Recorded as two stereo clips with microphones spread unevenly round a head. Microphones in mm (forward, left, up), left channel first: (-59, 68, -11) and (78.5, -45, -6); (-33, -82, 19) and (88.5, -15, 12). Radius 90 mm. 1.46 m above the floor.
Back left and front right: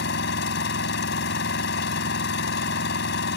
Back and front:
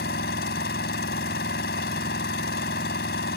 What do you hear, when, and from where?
0.0 s an engine running: 170° left